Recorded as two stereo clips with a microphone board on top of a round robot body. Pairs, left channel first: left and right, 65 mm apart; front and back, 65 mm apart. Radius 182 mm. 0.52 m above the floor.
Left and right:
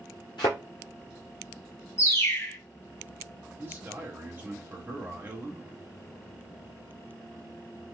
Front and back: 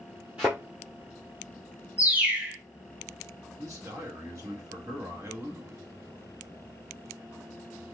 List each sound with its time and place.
0.4 s a thud: 105° left, 0.6 m
2.0 s a bird: 120° left, 1.2 m
3.6 s a man speaking: 145° right, 1.8 m